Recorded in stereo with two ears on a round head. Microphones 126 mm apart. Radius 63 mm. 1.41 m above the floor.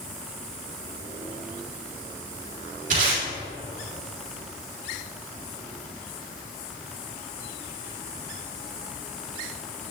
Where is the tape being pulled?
55° right (ahead or behind), 3.5 m.